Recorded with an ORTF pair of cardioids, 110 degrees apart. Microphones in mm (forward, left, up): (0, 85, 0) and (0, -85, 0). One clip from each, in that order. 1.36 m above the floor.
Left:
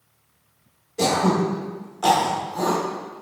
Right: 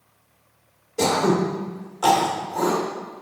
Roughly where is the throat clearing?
Ahead.